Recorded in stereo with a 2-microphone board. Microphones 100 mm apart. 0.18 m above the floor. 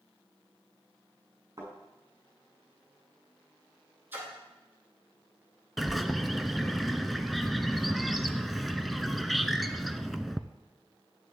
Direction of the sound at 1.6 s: 35° right (ahead or behind).